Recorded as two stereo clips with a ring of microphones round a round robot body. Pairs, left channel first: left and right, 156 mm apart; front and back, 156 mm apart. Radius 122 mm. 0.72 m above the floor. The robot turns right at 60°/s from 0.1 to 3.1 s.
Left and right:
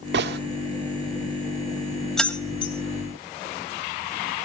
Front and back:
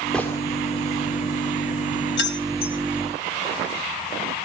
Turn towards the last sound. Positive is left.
turn(degrees=60)